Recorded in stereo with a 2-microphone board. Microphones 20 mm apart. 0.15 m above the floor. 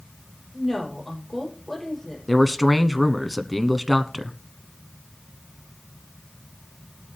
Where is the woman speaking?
Centre (ahead or behind), 5.5 m.